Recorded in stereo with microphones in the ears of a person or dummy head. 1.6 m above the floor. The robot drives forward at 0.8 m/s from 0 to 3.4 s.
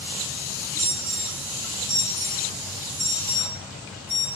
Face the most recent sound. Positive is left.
turn(degrees=-10)  # may be behind; listen again after turning